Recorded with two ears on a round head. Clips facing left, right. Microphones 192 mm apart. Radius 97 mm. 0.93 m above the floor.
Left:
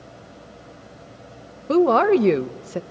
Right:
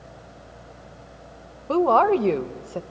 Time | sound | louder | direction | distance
1.7 | a woman speaking | left 3 dB | 25° left (ahead or behind) | 0.5 m